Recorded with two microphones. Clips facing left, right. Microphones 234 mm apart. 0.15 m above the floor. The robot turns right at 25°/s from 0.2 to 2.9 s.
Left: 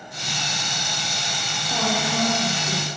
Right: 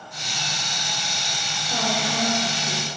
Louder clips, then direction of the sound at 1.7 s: Left 2 dB; 5° left (ahead or behind).